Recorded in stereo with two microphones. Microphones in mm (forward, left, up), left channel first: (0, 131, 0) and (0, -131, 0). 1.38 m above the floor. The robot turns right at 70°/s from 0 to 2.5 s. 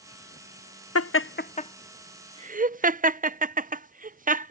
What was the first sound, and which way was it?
Laughter, 70° left (ahead or behind).